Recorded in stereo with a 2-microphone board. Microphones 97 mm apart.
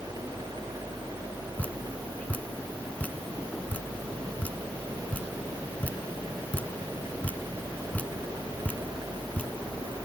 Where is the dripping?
15° left (ahead or behind), 0.7 m.